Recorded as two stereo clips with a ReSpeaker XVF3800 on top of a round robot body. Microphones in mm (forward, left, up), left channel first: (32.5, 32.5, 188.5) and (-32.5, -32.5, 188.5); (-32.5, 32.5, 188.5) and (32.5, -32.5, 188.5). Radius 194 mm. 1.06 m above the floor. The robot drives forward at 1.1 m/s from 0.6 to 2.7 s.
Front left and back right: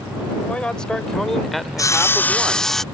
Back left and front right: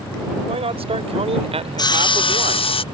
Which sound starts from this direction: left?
Sawing, at 1.8 s.